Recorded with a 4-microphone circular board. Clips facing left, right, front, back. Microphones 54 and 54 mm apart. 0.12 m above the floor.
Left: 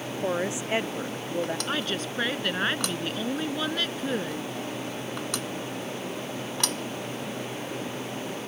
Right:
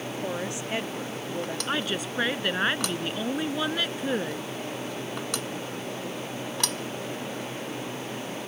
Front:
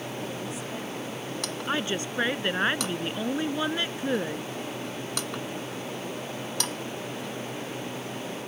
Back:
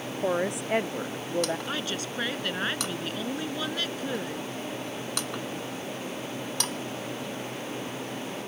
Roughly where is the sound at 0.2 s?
Behind left.